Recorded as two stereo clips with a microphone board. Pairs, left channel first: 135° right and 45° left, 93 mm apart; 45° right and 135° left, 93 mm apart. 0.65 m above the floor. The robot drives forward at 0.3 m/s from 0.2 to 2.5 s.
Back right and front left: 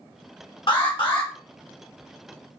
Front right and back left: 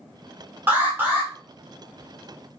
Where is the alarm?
155° right, 1.3 m; by 1.3 s 160° right, 1.4 m.